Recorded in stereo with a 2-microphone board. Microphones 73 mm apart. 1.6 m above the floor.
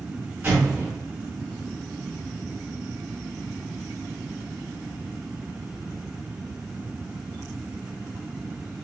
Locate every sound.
0.4 s an explosion: 25° right (ahead or behind), 1.6 m